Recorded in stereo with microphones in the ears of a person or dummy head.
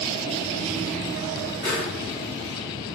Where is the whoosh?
15° left (ahead or behind), 1.8 m.